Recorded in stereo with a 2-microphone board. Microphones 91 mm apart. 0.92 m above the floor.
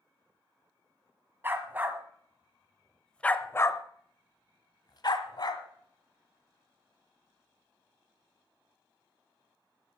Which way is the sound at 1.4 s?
25° right (ahead or behind).